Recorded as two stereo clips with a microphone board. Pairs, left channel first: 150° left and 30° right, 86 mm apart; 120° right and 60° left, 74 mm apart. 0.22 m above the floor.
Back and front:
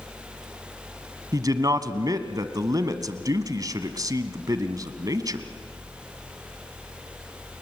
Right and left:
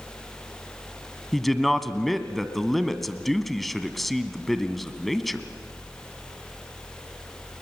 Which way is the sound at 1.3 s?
30° right.